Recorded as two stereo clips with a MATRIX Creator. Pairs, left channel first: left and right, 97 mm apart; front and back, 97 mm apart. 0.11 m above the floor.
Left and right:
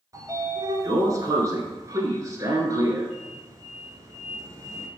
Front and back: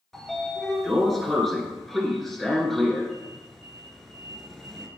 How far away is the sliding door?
About 1.0 m.